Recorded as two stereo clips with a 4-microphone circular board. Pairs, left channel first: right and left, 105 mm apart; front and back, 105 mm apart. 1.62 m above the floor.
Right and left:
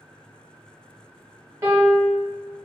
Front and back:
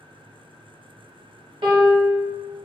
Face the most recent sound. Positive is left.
turn(degrees=150)